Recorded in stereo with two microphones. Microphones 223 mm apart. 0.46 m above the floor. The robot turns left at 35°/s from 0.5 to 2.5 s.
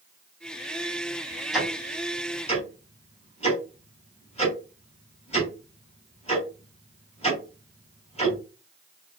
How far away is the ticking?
About 4 m.